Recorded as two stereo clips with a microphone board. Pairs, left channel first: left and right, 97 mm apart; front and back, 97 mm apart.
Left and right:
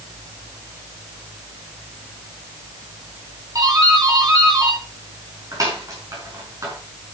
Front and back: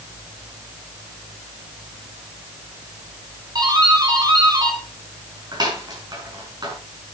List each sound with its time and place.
3.5 s a doorbell: 140° right, 6 m